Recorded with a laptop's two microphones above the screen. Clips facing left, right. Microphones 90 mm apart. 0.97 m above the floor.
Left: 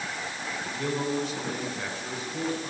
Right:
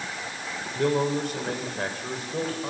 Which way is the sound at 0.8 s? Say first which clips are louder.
Right 6 dB; 55° right (ahead or behind).